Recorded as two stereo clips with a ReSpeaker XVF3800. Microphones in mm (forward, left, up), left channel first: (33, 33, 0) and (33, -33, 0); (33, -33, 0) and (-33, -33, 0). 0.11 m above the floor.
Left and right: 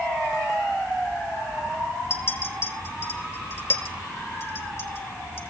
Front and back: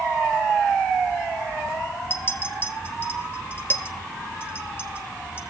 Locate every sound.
2.1 s a clink: 50° left, 2.0 m